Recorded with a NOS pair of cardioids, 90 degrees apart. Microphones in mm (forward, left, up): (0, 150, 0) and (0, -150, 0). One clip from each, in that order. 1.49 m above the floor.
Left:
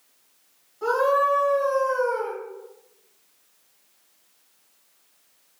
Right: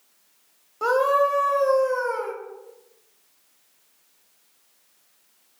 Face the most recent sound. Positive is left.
turn(degrees=-65)